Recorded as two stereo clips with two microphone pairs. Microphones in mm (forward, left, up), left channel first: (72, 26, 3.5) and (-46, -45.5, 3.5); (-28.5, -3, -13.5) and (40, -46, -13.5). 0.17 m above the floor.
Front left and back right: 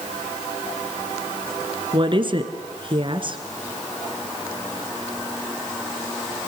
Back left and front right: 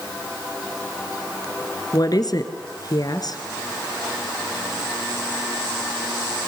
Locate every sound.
1.9 s a woman speaking: 165° left, 1.9 m